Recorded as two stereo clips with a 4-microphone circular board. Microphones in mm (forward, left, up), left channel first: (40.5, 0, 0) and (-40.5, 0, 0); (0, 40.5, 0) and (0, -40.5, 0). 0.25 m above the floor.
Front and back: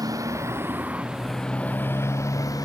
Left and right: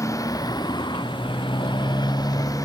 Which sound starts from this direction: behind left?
A motorcycle, at 0.0 s.